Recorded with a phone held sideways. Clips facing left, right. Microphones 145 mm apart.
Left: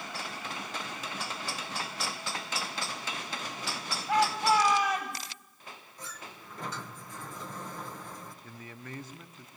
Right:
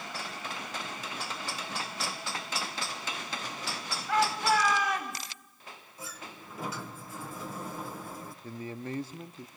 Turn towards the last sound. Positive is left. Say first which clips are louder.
# right 8 dB
turn(degrees=-30)  # may be behind; listen again after turning